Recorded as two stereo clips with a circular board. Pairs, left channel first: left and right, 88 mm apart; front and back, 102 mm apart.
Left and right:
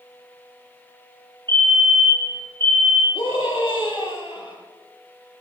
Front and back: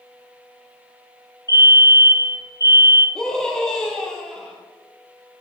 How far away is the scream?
About 4.5 m.